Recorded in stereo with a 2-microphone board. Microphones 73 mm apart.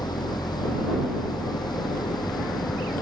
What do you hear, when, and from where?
0.0 s an engine running: 75° left (ahead or behind)